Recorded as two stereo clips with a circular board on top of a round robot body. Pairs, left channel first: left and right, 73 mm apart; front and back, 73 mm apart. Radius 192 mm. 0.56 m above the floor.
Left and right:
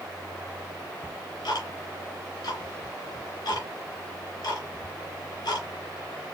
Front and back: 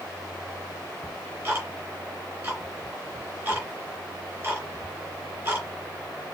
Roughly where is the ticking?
Left.